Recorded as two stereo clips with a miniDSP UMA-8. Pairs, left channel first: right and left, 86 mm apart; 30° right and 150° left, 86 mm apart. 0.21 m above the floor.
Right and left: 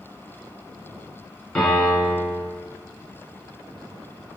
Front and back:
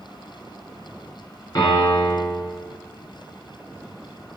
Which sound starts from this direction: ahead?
A piano, at 1.6 s.